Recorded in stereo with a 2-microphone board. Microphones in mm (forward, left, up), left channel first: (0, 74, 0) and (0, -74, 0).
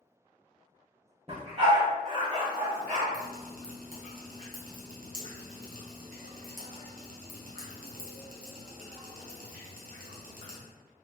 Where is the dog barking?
40° right (ahead or behind), 1.7 m; by 3.0 s 55° right (ahead or behind), 2.5 m.